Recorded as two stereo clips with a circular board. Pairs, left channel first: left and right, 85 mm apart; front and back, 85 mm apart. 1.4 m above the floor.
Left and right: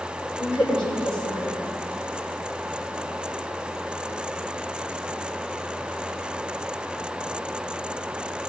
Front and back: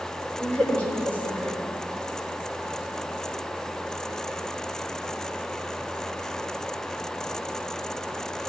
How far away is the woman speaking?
About 4 m.